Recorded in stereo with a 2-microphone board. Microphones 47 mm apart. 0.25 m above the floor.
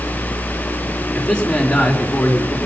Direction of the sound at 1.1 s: 20° left (ahead or behind).